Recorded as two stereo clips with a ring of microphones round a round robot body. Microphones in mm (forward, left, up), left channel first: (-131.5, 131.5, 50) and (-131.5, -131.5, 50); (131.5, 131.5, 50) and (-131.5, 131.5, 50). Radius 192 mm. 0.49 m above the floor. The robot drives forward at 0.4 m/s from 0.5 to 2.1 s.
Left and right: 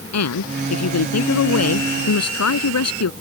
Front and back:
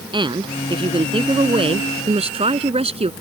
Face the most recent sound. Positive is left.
turn(degrees=110)